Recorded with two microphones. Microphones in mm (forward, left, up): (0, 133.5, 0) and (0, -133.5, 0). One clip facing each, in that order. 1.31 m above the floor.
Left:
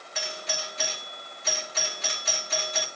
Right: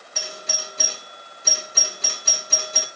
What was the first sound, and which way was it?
A doorbell, 45° right (ahead or behind).